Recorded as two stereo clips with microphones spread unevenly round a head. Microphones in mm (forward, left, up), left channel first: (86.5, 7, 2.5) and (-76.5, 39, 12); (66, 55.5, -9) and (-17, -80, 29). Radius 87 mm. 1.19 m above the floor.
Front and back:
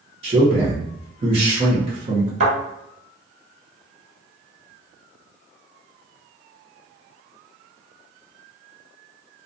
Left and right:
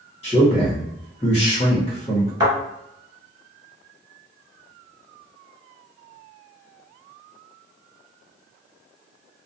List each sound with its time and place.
0.2 s a man speaking: 120° left, 1.0 m
2.4 s a thud: 165° right, 1.4 m